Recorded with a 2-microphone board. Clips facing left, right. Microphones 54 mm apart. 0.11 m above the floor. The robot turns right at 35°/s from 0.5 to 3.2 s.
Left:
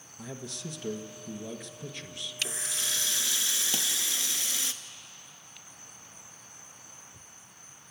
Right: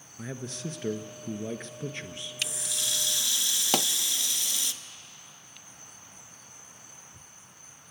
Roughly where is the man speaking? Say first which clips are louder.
Right 3 dB; behind right.